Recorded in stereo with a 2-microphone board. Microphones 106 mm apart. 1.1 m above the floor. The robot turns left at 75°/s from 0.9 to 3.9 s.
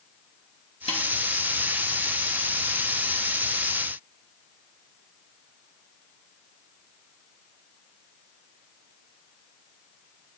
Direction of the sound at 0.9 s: 70° left (ahead or behind).